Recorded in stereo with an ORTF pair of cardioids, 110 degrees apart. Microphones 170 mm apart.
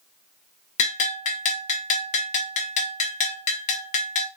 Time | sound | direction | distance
0.8 | a bell | 50° left | 0.8 m